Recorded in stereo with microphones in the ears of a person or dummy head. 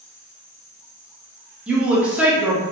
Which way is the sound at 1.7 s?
10° right (ahead or behind).